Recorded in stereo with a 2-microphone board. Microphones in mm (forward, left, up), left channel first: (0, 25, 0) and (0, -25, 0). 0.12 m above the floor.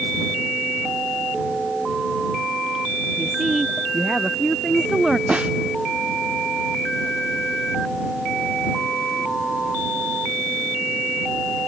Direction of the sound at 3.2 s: 5° right (ahead or behind).